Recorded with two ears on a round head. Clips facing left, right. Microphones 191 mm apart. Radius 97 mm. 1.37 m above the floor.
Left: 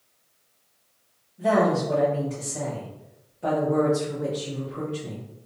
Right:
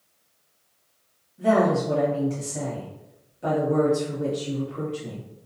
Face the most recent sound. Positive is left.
turn(degrees=-10)  # may be behind; listen again after turning